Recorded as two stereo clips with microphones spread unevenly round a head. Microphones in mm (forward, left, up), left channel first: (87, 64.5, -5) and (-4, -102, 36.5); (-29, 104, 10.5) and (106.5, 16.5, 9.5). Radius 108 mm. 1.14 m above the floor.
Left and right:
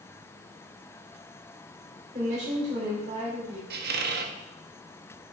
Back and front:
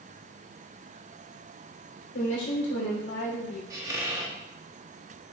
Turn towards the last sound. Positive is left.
turn(degrees=-110)